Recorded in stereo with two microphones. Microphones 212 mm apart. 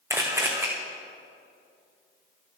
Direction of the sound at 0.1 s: 10° right (ahead or behind).